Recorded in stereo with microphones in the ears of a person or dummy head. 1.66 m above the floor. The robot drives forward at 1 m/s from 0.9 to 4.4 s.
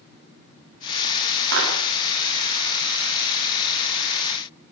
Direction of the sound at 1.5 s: 75° right (ahead or behind).